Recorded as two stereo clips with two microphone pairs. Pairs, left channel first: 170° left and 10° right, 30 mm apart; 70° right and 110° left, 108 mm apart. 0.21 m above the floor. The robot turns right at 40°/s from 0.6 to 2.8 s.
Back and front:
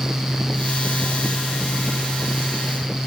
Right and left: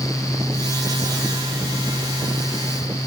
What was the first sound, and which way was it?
Only background noise.